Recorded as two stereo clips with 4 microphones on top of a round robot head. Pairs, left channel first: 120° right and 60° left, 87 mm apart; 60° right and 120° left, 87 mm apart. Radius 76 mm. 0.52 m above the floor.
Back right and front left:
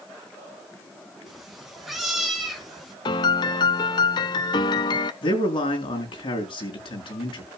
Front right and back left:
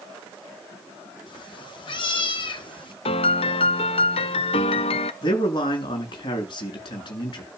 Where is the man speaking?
95° right, 6.5 m.